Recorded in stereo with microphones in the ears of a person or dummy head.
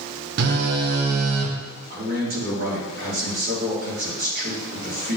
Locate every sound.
0.4 s a phone buzzing: 55° right (ahead or behind), 1.1 m
1.9 s a man speaking: 55° right (ahead or behind), 3 m